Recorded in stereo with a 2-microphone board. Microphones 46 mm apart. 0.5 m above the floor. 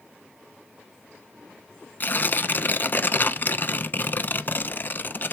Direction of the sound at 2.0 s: 50° left (ahead or behind).